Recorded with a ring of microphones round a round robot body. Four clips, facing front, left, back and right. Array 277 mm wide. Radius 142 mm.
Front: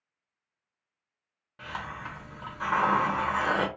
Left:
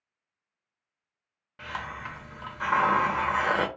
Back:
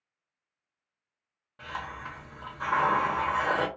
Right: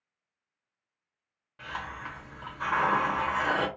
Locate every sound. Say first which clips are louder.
1.6 s a hiss: left 2 dB, even; 80° left, 1.0 m